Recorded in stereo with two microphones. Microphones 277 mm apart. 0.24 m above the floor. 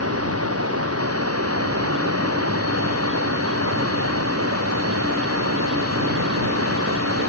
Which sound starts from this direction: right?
Running water, at 0.0 s.